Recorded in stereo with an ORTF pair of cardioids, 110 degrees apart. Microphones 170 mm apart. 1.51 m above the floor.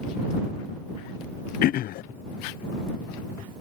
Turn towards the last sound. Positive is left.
turn(degrees=60)